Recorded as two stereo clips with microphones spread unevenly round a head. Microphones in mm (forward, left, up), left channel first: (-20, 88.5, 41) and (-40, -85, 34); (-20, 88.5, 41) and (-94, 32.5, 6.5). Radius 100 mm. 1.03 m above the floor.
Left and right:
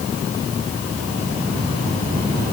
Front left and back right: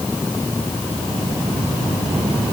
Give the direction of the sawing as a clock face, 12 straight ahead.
No sawing in this recording.